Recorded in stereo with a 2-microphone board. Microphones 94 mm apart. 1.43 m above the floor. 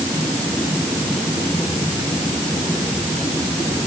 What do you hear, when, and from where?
Only background noise.